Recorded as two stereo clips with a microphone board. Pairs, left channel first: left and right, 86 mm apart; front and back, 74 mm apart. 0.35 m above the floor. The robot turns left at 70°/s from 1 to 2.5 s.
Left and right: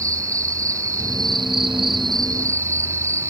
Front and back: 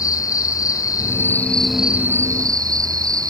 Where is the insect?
40° right; by 3.3 s 145° right.